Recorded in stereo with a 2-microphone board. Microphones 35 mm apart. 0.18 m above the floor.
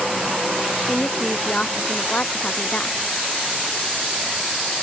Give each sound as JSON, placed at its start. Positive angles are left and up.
{"t": 0.9, "sound": "a woman speaking", "side_deg": 40}